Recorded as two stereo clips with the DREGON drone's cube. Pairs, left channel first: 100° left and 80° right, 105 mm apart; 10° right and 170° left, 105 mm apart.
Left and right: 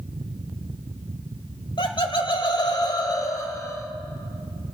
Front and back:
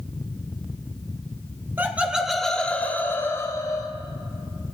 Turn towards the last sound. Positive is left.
turn(degrees=40)